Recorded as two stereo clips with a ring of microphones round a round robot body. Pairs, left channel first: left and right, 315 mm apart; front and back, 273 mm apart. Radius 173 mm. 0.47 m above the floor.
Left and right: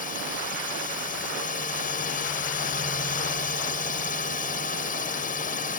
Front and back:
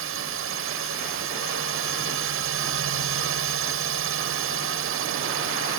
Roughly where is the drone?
Behind left.